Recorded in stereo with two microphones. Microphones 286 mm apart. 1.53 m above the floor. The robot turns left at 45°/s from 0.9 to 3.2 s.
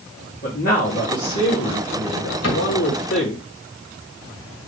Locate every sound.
0.4 s a man speaking: 145° left, 1.8 m; by 3.4 s 40° left, 1.8 m
2.4 s a cupboard door: 60° left (ahead or behind), 2 m; by 2.7 s 70° left (ahead or behind), 2 m